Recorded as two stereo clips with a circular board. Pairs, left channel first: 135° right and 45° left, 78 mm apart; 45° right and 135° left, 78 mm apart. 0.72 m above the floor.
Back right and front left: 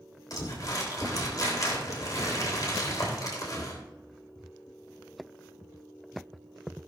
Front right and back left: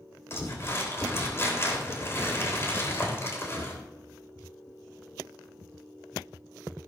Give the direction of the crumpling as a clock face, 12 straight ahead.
3 o'clock.